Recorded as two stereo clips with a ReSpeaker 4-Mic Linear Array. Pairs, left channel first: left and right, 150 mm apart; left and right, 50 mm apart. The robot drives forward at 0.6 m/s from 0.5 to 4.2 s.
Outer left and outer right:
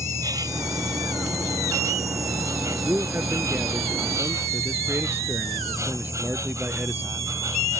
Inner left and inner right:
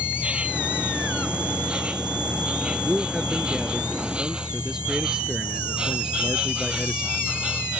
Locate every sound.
0.0 s an insect: 25° right (ahead or behind); by 7.8 s 20° right (ahead or behind)
2.7 s a man speaking: 15° right (ahead or behind); by 7.2 s 10° right (ahead or behind)